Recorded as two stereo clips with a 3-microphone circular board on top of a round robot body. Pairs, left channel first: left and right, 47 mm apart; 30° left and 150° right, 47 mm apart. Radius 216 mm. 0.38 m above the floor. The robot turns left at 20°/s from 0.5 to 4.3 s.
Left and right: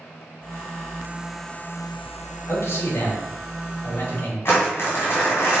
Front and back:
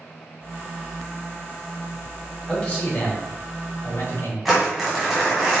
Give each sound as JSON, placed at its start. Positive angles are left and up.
{"t": 2.5, "sound": "a man speaking", "azimuth_deg": 100, "distance_m": 3.5}
{"t": 4.5, "sound": "crumpling", "azimuth_deg": 120, "distance_m": 3.0}